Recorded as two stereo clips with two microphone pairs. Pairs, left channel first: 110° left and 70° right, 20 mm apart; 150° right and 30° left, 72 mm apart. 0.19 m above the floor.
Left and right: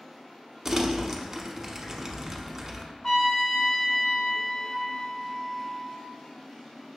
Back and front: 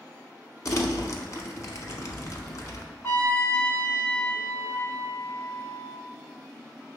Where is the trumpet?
160° left, 0.6 m.